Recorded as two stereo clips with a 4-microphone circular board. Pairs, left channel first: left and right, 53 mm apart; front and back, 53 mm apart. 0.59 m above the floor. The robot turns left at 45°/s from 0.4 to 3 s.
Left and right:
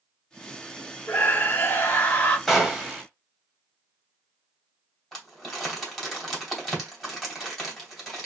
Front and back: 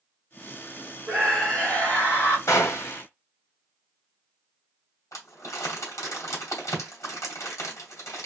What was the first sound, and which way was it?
A scream, 95° left.